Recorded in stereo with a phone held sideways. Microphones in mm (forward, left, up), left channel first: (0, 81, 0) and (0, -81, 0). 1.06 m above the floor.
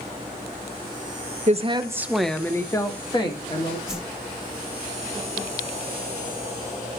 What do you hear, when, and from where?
1.5 s a woman speaking: 45° right (ahead or behind), 0.6 m; by 3.8 s 35° left (ahead or behind), 1.6 m
3.9 s a whoosh: 5° right (ahead or behind), 1.1 m